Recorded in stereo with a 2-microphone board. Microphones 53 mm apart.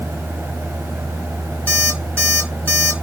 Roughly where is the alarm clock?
Left.